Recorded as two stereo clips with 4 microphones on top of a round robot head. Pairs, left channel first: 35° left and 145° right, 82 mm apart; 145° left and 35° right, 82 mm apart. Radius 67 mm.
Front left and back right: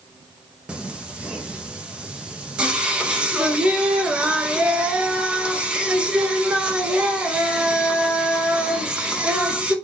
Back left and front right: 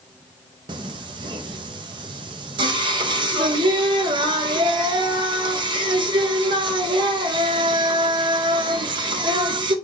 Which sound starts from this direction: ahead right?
Singing, at 0.7 s.